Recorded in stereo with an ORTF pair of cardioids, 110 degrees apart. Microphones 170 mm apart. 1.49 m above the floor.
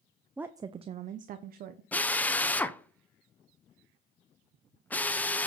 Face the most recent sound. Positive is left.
turn(degrees=10)